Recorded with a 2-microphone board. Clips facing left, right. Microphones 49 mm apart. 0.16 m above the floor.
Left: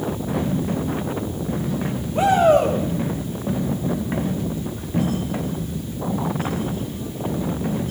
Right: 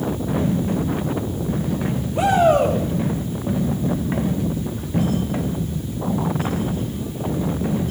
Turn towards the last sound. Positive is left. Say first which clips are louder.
# left 1 dB
turn(degrees=30)  # may be behind; listen again after turning